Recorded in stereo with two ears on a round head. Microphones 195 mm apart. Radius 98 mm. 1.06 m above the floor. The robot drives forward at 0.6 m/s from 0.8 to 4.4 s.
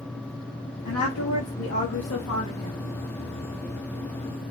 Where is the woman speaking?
75° left (ahead or behind), 2.0 m; by 2.8 s 65° left (ahead or behind), 2 m.